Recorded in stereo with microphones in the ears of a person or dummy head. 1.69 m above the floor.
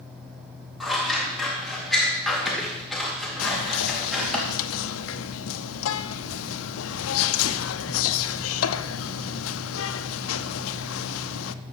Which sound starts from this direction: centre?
Scissors, at 0.8 s.